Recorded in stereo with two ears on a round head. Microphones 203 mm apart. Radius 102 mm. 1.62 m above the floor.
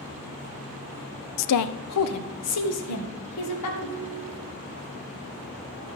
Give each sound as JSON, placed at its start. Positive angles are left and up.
{"t": 1.4, "sound": "a woman speaking", "side_deg": 85, "distance_m": 0.5}
{"t": 3.8, "sound": "a ringtone", "side_deg": -30, "distance_m": 3.0}